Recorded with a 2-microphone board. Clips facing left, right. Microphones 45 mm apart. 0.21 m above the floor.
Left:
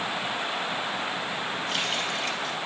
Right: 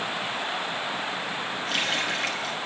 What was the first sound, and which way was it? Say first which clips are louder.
A running tap: right 4 dB; 70° right (ahead or behind).